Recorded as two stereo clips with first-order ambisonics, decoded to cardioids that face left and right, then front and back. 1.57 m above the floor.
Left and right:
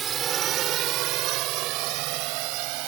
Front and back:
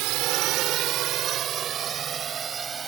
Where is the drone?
155° right; by 2.9 s 110° right.